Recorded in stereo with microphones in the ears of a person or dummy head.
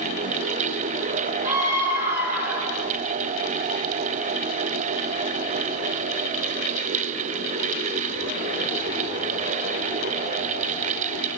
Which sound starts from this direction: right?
A scream, at 1.4 s.